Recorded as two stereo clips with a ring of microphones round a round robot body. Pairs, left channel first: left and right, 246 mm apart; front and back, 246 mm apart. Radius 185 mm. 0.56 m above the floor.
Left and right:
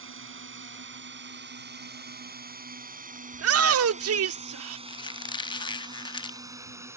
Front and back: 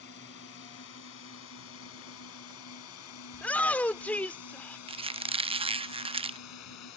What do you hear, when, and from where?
0.0 s a drone: 55° right; by 7.0 s 10° right
3.3 s a shout: 85° right
4.9 s a squeak: 140° left